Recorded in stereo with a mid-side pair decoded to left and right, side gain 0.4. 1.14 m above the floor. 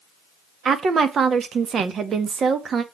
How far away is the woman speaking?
About 1.6 m.